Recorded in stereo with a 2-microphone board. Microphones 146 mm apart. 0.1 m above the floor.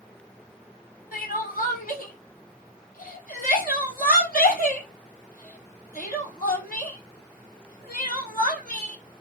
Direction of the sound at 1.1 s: 65° left (ahead or behind).